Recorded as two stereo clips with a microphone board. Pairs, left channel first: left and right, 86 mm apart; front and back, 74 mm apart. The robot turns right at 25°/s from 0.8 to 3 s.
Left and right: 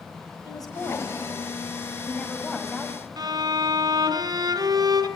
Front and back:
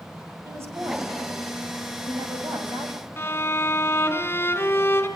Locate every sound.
0.5 s a woman speaking: 130° left, 6 m; by 3.1 s 175° right, 6 m
3.2 s a violin: 55° right, 3 m